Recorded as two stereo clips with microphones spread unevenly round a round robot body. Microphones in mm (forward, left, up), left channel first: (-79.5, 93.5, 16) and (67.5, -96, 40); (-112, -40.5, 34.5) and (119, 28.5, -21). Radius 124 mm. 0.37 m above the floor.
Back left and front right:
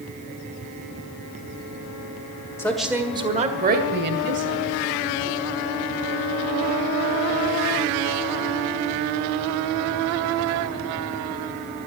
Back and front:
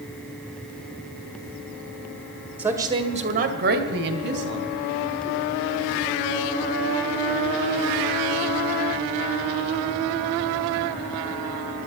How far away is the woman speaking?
About 1.4 m.